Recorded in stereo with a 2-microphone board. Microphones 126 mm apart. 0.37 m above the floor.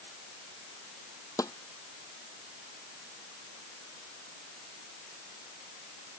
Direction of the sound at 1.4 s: 25° left (ahead or behind).